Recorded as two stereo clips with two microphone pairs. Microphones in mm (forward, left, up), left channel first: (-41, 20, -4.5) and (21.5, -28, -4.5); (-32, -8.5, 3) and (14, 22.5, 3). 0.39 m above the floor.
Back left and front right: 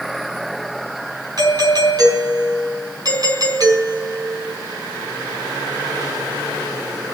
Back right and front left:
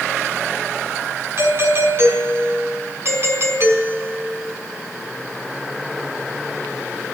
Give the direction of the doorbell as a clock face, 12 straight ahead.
12 o'clock.